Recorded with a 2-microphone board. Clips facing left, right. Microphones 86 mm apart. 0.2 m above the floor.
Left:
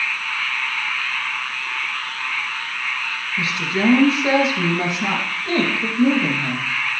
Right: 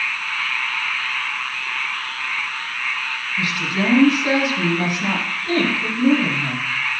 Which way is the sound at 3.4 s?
25° left (ahead or behind).